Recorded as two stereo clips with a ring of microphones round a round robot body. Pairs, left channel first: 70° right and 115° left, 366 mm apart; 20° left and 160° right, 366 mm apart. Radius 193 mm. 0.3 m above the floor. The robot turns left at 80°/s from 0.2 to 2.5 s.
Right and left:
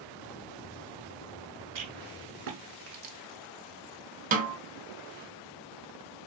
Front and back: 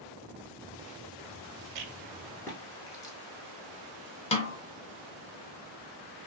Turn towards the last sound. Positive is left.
turn(degrees=75)